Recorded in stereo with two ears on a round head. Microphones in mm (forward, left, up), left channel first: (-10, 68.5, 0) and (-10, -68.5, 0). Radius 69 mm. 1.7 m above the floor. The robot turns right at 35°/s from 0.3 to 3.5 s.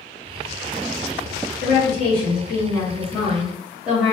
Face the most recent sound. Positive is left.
turn(degrees=-175)